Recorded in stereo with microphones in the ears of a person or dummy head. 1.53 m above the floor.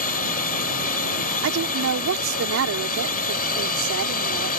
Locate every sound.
0.0 s a drone: 45° left (ahead or behind)
1.4 s a woman speaking: 75° right (ahead or behind)